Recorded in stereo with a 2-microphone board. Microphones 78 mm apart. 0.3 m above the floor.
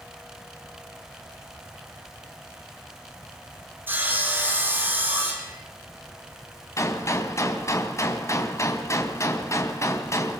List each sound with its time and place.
3.9 s sawing: 25° right (ahead or behind), 5.5 m
6.8 s a gunshot: 40° left (ahead or behind), 2.5 m